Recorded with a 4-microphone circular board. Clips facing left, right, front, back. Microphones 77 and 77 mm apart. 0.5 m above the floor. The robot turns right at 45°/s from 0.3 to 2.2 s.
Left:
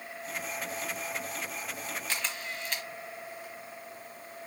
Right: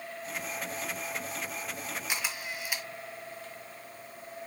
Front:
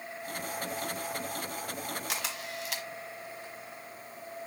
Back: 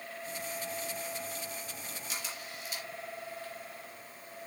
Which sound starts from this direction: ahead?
A camera shutter, at 2.1 s.